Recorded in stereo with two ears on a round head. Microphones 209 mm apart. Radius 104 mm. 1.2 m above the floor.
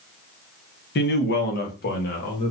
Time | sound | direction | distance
0.9 | a man speaking | 45° left (ahead or behind) | 0.9 m